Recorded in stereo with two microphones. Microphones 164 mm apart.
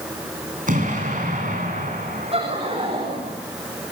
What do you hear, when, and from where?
0.7 s an explosion: 55° right (ahead or behind), 8 m
2.3 s laughter: 40° right (ahead or behind), 6.5 m